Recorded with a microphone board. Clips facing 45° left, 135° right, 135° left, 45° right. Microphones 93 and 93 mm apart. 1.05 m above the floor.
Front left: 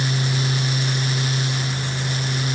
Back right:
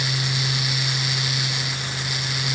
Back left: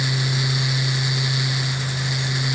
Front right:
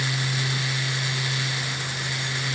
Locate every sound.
Only background noise.